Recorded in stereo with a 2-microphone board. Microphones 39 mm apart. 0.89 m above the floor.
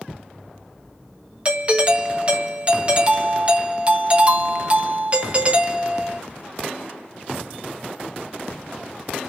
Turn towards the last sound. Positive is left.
turn(degrees=-30)  # may be behind; listen again after turning